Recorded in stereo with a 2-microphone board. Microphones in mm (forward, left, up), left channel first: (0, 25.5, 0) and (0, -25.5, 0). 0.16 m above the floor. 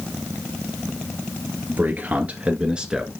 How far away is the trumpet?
I don't hear a trumpet.